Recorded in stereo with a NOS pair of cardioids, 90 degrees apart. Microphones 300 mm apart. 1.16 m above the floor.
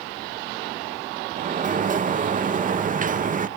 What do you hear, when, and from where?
1.4 s a sliding door: 30° right, 0.8 m